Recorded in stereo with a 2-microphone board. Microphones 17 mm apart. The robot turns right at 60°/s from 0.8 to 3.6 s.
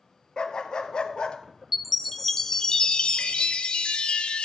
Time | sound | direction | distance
0.4 | a dog barking | 60° left | 0.9 m
1.7 | a chime | 15° right | 0.6 m